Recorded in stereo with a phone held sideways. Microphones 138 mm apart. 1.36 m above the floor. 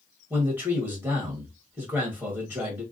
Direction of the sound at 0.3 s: 15° right (ahead or behind).